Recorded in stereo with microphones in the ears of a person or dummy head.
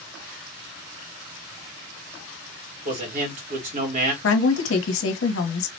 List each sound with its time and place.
2.9 s a man speaking: 45° right (ahead or behind), 2.5 m
4.2 s a woman speaking: 70° left (ahead or behind), 1.3 m